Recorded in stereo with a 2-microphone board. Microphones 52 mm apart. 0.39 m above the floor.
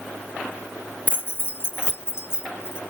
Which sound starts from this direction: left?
Keys jangling, at 1.1 s.